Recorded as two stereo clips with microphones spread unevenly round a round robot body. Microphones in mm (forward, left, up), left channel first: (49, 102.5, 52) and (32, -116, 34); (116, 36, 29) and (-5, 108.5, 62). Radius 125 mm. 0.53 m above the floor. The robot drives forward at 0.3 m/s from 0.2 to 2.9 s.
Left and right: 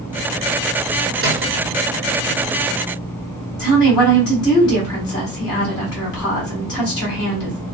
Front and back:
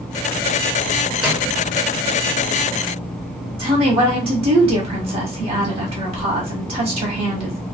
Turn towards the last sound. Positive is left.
turn(degrees=160)